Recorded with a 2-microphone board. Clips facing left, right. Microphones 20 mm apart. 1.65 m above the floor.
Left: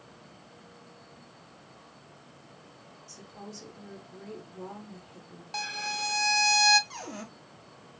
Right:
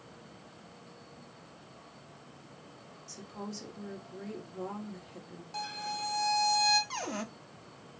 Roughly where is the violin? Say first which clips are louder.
Left 4 dB; left.